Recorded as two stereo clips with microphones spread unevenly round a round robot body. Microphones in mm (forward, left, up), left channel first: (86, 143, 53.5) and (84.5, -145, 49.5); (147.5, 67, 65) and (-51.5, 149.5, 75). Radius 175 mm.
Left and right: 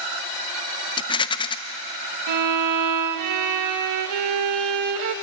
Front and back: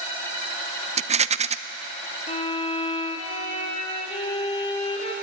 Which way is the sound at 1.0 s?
145° left.